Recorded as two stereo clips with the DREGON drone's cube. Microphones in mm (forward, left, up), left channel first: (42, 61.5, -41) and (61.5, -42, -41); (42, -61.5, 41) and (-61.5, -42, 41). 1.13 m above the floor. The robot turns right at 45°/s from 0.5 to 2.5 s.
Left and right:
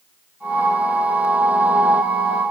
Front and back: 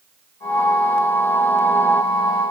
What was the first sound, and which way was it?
Only background noise.